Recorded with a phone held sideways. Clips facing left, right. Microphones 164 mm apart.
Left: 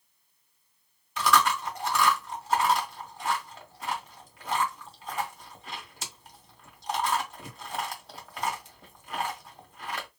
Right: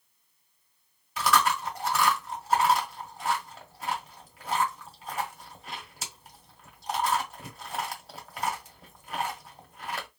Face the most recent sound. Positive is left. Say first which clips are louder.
# left 1 dB
turn(degrees=-5)  # may be behind; listen again after turning